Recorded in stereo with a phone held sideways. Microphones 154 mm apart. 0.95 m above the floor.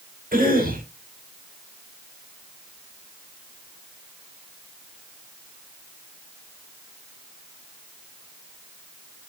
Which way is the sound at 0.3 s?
65° right (ahead or behind).